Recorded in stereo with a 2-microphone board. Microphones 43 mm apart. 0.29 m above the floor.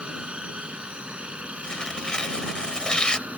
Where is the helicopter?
25° right (ahead or behind); by 3.4 s 30° right (ahead or behind).